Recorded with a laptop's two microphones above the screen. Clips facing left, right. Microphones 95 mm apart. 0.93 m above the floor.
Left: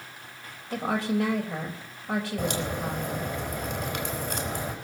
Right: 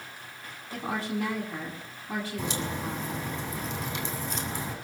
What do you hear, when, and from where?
0.7 s a woman speaking: 85° left, 4 m
2.4 s a crack: 70° left (ahead or behind), 4 m